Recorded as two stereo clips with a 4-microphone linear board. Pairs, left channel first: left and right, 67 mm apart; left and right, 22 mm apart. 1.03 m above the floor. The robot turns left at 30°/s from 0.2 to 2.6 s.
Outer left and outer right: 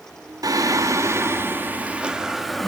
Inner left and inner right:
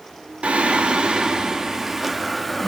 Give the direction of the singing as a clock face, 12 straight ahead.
4 o'clock.